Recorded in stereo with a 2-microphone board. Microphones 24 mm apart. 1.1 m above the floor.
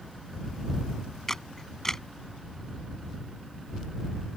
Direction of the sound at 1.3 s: 20° left (ahead or behind).